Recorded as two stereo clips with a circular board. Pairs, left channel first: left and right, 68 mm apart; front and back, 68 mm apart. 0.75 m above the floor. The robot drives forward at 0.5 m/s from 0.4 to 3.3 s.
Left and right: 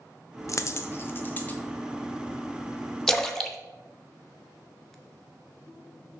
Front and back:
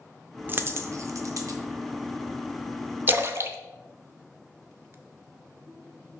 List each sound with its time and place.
0.5 s a dropped coin: 125° left, 0.5 m; by 1.6 s 155° left, 0.9 m
3.1 s a splash: 170° left, 0.6 m